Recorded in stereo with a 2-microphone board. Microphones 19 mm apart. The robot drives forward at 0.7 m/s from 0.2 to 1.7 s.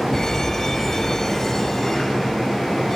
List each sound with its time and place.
0.1 s an alarm: 25° left (ahead or behind); by 3.0 s 20° left (ahead or behind)